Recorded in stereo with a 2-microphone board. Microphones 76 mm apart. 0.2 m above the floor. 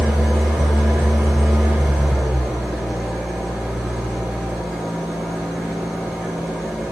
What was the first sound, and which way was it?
An engine running, centre (ahead or behind).